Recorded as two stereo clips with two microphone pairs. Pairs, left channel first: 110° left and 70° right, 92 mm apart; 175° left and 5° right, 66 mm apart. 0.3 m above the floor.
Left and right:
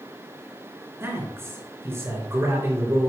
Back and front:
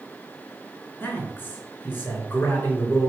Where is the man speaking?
130° right, 3.5 m.